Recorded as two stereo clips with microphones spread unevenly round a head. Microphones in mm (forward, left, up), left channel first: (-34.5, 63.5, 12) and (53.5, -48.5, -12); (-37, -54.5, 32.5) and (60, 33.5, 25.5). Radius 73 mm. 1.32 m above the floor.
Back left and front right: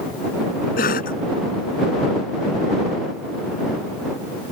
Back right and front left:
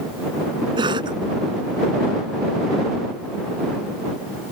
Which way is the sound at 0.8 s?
100° left.